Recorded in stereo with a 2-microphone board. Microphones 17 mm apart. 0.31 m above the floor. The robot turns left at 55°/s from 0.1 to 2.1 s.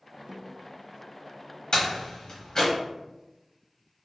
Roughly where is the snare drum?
Right.